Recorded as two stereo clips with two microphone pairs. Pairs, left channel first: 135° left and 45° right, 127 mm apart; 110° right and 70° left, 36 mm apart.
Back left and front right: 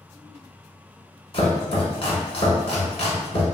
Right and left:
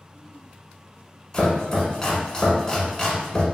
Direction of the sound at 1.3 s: 175° left.